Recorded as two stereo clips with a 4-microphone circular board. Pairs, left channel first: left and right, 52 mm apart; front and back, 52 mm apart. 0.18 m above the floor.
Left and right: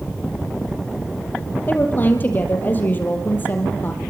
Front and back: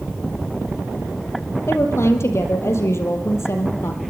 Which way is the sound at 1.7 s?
35° left.